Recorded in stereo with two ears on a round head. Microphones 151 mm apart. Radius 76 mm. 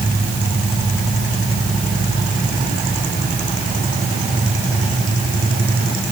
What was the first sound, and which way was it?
Only background noise.